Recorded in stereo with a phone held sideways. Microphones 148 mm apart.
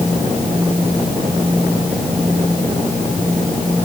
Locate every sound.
Only background noise.